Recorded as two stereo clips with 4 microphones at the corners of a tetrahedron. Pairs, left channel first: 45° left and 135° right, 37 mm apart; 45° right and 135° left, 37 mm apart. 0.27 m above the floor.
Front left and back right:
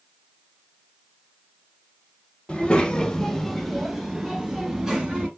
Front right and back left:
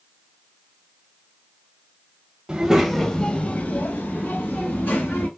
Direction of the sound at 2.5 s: 85° left.